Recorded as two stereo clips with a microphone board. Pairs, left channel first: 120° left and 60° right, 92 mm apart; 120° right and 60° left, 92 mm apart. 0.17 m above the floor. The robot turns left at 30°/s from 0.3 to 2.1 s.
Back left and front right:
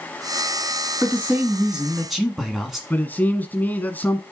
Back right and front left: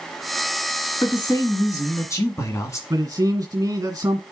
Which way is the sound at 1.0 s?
115° right.